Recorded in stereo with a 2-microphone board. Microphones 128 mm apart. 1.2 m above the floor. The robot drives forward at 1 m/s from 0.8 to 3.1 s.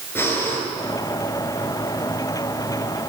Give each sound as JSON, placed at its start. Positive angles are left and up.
{"t": 0.1, "sound": "breathing", "side_deg": 20, "distance_m": 8.0}